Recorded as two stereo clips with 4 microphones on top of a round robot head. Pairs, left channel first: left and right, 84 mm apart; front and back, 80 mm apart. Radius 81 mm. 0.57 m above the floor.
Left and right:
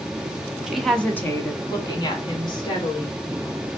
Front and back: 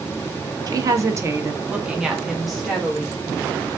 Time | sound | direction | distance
0.7 | a woman speaking | 175° right | 0.9 m